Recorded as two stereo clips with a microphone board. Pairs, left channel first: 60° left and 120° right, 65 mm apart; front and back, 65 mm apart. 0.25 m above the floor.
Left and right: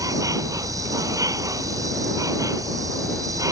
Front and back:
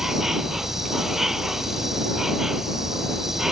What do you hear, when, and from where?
0.0 s an insect: 95° right